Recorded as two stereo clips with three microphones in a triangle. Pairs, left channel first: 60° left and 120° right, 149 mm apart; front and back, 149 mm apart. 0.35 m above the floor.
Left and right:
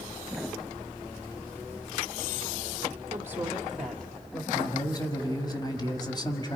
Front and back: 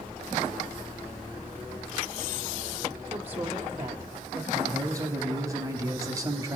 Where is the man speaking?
115° left, 1.7 m.